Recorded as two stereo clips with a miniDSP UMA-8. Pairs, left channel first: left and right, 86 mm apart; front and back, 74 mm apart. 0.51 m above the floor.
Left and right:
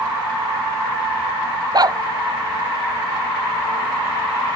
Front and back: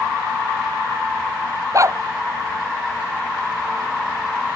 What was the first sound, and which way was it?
A dog barking, 135° right.